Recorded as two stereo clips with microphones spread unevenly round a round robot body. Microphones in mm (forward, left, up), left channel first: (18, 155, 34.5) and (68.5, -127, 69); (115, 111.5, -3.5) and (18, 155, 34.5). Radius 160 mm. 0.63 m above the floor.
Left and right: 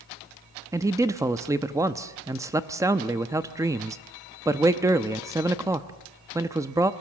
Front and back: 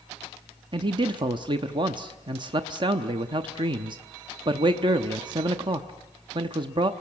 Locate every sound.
0.7 s a man speaking: 160° right, 0.7 m